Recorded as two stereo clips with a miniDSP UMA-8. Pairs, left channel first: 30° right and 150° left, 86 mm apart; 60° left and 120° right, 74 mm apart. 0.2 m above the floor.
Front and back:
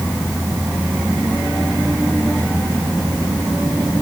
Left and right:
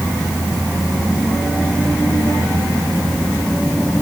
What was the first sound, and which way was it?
Only background noise.